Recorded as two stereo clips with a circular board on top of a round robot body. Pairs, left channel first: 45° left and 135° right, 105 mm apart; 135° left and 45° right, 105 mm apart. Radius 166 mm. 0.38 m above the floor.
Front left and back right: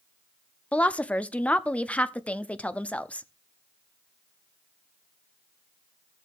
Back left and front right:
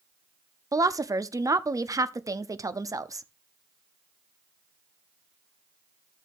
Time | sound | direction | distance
0.7 | a woman speaking | 25° right | 0.9 m